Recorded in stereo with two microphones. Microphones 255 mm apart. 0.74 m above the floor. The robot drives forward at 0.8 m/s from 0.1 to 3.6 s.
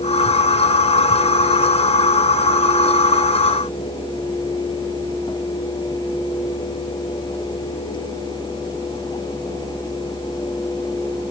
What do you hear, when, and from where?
Only background noise.